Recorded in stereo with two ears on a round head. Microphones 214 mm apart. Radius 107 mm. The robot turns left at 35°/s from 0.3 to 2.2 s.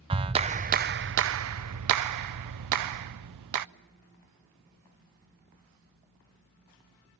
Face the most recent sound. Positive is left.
turn(degrees=-90)